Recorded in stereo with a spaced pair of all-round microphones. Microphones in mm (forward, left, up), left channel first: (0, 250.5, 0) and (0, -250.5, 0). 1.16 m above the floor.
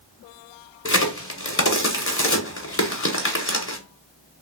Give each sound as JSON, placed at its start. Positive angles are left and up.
{"t": 0.8, "sound": "a crack", "side_deg": 25, "distance_m": 0.8}